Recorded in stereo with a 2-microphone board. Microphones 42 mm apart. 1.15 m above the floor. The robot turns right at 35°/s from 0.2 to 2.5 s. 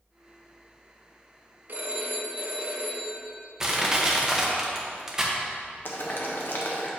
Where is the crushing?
15° right (ahead or behind), 0.8 m.